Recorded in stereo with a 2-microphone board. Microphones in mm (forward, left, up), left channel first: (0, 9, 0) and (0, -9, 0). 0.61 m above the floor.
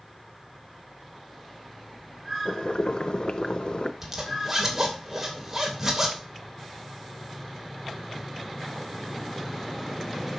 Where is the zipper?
15° right (ahead or behind), 2.5 m.